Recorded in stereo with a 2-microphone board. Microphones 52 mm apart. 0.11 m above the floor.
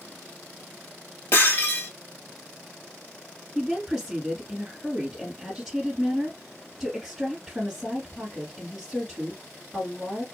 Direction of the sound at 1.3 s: 55° left (ahead or behind).